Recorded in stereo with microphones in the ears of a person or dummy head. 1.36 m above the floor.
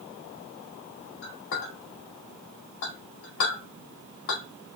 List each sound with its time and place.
1.2 s a clink: 75° left (ahead or behind), 2.0 m